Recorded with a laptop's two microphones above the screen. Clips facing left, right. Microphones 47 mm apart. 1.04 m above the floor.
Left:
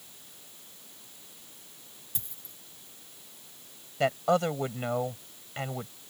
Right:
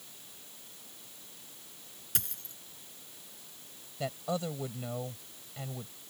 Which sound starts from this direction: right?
A dropped coin, at 2.1 s.